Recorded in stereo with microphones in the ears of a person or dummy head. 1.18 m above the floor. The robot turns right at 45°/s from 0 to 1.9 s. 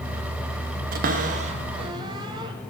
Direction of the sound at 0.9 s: 45° right (ahead or behind).